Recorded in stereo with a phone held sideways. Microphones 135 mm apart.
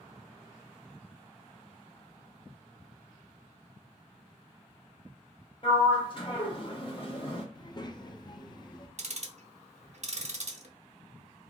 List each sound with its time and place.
5.6 s a sliding door: 40° left (ahead or behind), 0.8 m
7.5 s a child speaking: 30° left (ahead or behind), 0.6 m
9.0 s ticking: 55° right (ahead or behind), 0.6 m